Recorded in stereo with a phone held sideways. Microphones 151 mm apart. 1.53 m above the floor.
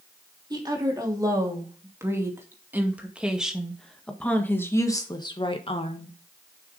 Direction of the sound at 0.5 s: 30° right (ahead or behind).